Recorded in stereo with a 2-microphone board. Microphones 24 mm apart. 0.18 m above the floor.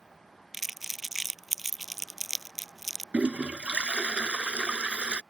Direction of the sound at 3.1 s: 55° right (ahead or behind).